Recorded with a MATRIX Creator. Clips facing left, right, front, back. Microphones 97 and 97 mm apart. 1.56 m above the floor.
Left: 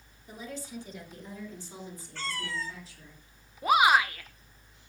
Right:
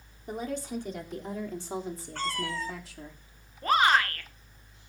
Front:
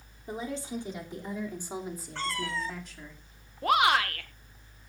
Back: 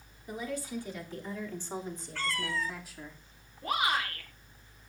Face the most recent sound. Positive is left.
turn(degrees=10)